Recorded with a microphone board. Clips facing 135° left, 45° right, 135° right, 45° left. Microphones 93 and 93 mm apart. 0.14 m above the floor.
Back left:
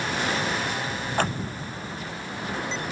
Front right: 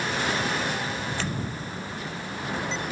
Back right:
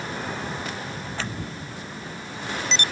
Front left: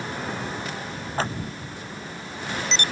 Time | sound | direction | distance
1.2 | scissors | 95° left | ?